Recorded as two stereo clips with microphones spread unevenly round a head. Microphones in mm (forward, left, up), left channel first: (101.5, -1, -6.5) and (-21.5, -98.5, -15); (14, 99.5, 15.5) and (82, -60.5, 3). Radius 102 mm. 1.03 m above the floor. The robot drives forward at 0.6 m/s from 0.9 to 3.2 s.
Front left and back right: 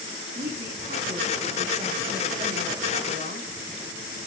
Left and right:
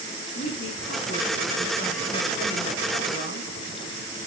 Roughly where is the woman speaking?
Behind.